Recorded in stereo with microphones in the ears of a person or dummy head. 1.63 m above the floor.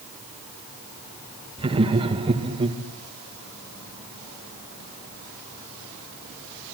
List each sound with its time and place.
1.6 s laughter: 30° right (ahead or behind), 2.5 m